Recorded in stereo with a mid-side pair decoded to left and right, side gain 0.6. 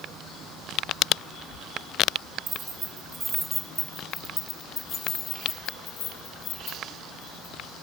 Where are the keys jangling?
35° right, 1.7 m; by 7.5 s 65° left, 3 m.